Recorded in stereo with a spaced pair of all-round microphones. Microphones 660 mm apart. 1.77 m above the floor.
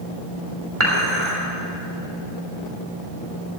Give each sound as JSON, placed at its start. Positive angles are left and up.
{"t": 0.8, "sound": "dishes clattering", "side_deg": -50, "distance_m": 3.5}